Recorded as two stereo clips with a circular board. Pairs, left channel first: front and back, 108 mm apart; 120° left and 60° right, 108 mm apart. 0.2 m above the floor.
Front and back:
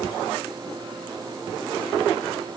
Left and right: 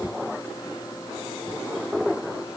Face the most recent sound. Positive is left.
No sound to turn to.